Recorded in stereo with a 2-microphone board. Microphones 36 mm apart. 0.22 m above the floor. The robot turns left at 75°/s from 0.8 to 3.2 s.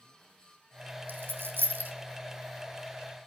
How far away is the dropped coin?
About 2.5 m.